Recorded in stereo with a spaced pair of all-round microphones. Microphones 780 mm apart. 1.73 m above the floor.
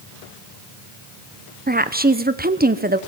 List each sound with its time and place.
1.7 s a woman speaking: 10° right (ahead or behind), 0.7 m